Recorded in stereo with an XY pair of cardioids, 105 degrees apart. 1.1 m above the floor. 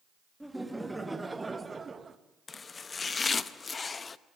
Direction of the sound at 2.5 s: 35° left.